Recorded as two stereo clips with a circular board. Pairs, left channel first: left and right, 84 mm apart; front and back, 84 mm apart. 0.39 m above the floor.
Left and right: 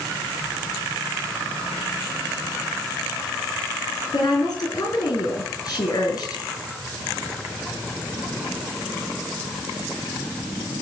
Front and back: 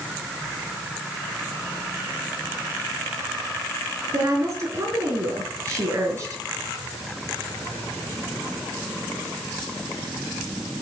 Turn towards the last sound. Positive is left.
turn(degrees=130)